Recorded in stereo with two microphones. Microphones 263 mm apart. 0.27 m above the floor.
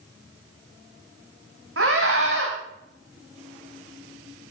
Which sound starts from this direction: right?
A scream, at 1.8 s.